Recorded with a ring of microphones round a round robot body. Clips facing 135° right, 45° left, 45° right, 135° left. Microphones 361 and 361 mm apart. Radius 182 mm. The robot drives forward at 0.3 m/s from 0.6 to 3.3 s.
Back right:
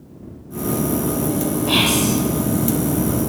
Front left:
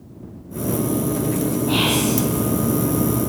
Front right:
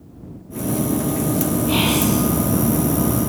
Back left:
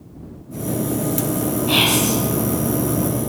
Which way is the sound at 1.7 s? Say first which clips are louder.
Back right 1 dB, front right 1 dB; 150° right.